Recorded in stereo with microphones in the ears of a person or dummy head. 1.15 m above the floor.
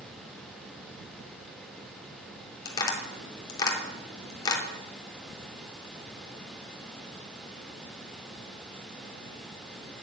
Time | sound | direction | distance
2.6 | tapping | 25° left (ahead or behind) | 3.5 m